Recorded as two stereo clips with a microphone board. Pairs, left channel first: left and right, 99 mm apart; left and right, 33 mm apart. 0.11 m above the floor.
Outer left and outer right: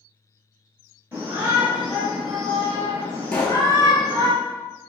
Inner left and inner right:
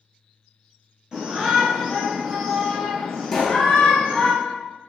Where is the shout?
20° right (ahead or behind), 1.5 m; by 4.3 s 40° left (ahead or behind), 1.6 m.